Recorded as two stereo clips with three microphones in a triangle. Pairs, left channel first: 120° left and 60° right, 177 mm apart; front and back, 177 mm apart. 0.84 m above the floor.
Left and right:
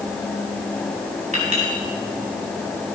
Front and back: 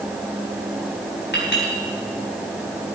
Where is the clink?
10° right, 4.5 m.